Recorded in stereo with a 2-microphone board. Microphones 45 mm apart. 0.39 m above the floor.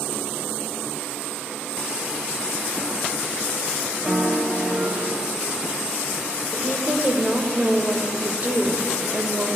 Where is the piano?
30° right (ahead or behind), 1.9 m.